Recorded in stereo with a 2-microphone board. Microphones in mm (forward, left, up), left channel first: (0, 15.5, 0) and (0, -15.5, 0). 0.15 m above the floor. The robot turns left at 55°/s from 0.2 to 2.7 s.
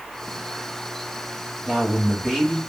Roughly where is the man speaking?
Behind right.